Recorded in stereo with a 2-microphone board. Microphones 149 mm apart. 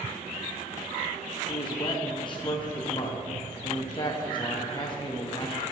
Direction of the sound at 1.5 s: 30° left (ahead or behind).